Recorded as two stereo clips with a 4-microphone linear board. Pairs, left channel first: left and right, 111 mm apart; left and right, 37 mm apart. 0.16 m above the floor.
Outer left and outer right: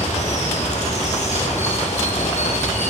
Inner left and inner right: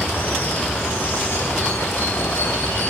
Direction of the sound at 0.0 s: 75° left (ahead or behind).